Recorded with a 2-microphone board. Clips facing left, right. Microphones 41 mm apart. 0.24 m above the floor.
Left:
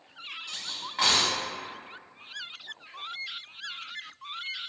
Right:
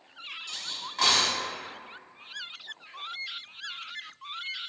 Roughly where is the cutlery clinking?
Centre.